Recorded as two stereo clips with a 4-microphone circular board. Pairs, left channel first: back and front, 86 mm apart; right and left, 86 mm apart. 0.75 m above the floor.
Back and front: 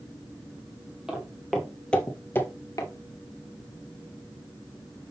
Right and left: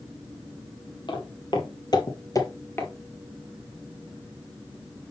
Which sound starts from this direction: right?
Footsteps, at 1.1 s.